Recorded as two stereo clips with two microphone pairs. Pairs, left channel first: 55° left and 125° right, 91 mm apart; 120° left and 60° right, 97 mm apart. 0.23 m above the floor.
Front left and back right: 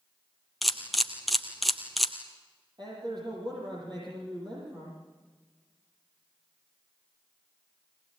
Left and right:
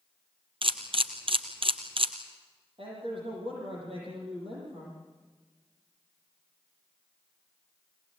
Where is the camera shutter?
35° right, 2.0 m.